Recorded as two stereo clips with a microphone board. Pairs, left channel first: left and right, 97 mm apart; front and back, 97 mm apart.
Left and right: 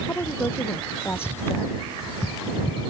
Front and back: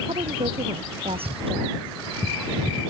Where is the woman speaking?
160° left.